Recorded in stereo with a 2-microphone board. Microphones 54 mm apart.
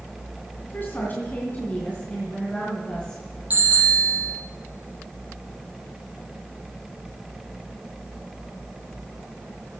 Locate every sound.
0.6 s a woman speaking: 45° left (ahead or behind), 2.5 m; by 3.2 s 15° left (ahead or behind), 4 m
3.5 s a bicycle bell: 30° right (ahead or behind), 7.5 m